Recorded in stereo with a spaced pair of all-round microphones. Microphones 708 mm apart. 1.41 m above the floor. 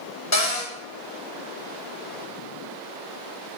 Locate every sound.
0.3 s a cupboard door: 25° left (ahead or behind), 1.0 m